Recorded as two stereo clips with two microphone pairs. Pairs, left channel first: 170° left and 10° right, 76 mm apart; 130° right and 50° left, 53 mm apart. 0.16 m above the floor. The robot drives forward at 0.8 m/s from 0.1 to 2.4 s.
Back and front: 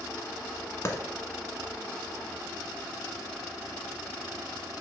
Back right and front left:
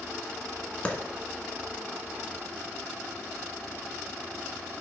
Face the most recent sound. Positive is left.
turn(degrees=180)